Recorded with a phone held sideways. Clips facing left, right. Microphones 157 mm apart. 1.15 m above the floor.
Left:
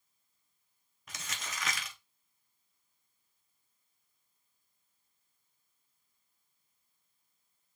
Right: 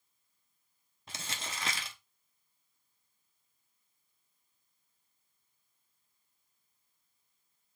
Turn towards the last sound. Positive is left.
turn(degrees=-30)  # may be behind; listen again after turning